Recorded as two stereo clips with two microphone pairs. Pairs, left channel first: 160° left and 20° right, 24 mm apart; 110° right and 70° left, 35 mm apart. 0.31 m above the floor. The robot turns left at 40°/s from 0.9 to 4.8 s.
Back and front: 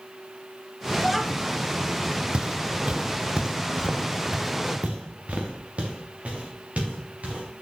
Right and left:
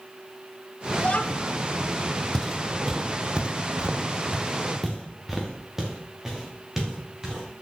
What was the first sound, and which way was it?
A child speaking, 100° right.